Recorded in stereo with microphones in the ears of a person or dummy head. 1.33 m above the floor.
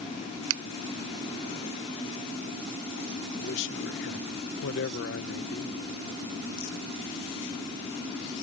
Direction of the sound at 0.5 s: 85° right.